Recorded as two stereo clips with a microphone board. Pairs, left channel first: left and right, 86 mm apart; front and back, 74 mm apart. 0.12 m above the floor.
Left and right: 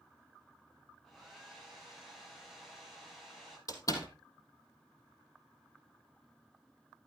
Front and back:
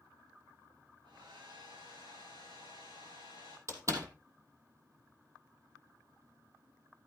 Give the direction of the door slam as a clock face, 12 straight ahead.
8 o'clock.